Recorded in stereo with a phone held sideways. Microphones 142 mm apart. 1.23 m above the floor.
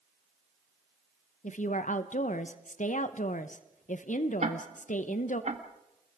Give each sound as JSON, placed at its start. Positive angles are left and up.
{"t": 1.4, "sound": "a woman speaking", "side_deg": 70, "distance_m": 0.8}
{"t": 4.4, "sound": "ticking", "side_deg": -60, "distance_m": 1.6}